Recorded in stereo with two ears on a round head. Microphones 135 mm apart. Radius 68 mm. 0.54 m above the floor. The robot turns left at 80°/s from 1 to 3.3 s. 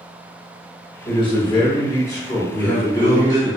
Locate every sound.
1.1 s a man speaking: 120° left, 1.2 m; by 3.5 s 60° right, 1.2 m
2.5 s a man speaking: 115° left, 1.2 m; by 3.5 s 55° left, 1.2 m